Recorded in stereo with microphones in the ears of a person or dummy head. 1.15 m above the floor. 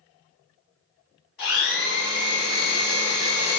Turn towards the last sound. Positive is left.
turn(degrees=50)  # may be behind; listen again after turning